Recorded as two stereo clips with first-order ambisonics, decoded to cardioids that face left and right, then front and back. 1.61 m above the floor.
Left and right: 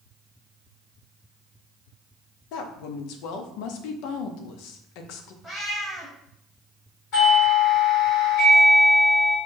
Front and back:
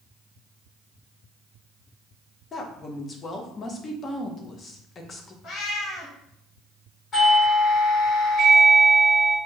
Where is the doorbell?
60° left, 2.5 m.